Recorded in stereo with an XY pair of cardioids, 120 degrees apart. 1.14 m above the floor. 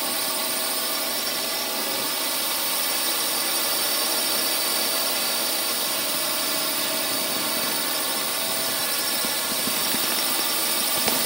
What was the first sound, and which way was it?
A drone, 15° right.